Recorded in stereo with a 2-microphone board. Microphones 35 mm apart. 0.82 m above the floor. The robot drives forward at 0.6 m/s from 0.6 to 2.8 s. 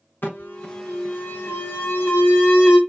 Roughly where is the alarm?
Left.